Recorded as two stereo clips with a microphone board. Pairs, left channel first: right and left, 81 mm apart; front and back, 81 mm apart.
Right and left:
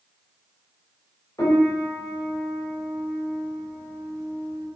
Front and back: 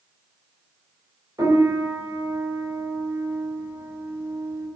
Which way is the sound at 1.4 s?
135° right.